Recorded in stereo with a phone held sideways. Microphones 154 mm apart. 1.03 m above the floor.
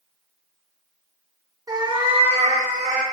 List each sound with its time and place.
1.7 s a cat meowing: 20° right (ahead or behind), 0.6 m; by 3.0 s 55° right (ahead or behind), 1.1 m